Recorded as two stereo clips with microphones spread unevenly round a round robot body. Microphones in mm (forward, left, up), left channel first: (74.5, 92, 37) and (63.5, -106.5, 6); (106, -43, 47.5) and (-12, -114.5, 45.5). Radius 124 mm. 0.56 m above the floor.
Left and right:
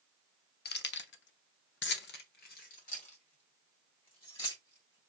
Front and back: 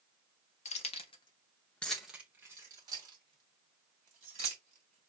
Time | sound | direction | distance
0.7 | keys jangling | 55° left | 0.9 m